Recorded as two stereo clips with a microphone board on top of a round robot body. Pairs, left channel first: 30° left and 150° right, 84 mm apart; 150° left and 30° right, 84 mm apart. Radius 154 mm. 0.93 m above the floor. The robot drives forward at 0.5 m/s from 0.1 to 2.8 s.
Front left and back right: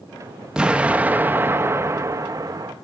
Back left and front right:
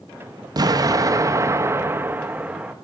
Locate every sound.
0.6 s an explosion: 70° right, 1.7 m; by 2.7 s 110° right, 1.7 m